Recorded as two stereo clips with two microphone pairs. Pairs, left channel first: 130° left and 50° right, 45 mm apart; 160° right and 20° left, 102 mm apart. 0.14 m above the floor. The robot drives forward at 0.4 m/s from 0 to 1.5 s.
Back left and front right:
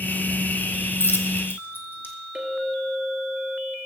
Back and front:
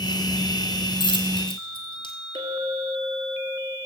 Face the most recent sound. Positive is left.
turn(degrees=0)